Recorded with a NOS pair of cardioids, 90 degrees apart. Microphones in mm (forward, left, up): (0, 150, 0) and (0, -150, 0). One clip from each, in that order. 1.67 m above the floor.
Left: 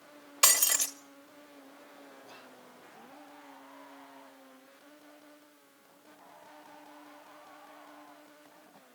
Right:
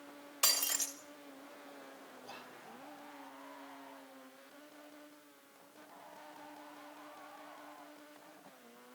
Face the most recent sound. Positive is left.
turn(degrees=-30)